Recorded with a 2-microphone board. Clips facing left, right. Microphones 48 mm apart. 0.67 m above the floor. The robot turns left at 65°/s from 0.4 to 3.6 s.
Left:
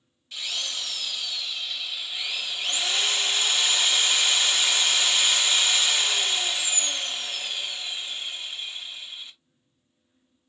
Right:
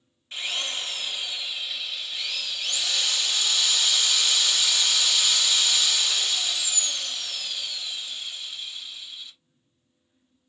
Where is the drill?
30° right (ahead or behind), 0.8 m; by 9.3 s 25° left (ahead or behind), 0.8 m.